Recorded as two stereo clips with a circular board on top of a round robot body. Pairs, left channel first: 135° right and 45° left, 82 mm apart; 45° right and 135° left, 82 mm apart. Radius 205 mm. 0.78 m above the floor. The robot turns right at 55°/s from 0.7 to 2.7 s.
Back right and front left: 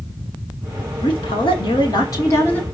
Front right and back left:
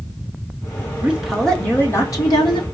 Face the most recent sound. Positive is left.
turn(degrees=-60)